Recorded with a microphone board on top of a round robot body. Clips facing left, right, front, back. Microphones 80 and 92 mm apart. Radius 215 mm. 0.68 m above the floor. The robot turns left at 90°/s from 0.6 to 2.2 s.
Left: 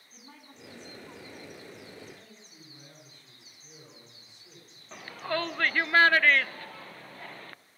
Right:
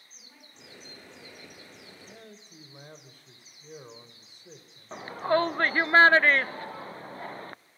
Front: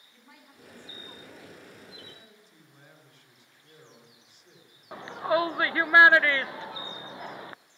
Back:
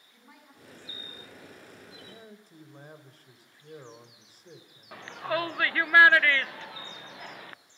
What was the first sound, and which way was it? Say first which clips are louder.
A woman speaking: left 6 dB, even; 95° left.